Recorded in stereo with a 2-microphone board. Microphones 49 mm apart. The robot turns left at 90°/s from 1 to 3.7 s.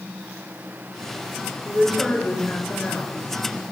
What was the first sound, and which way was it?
A woman speaking, 155° right.